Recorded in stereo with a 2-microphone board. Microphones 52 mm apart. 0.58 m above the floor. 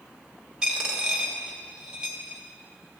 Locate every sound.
0.6 s a dropped coin: 15° right (ahead or behind), 1.2 m